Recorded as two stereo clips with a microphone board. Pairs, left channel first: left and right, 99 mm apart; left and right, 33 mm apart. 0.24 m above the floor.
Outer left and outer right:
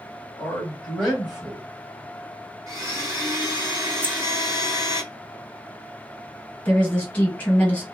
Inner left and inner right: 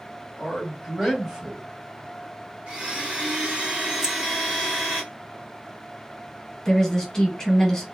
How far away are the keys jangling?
About 0.7 m.